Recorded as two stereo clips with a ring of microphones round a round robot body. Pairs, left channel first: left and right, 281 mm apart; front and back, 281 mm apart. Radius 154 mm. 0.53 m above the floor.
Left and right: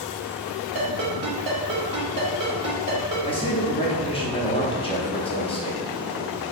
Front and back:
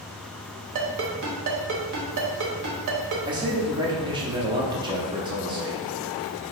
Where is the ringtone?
160° right, 1.2 m.